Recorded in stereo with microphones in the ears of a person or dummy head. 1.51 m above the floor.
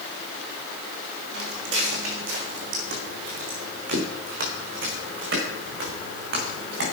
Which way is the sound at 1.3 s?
65° right (ahead or behind).